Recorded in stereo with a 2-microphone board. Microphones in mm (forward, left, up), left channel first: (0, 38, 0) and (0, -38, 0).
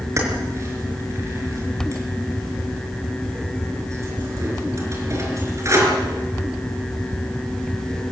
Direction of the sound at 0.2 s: 40° right (ahead or behind).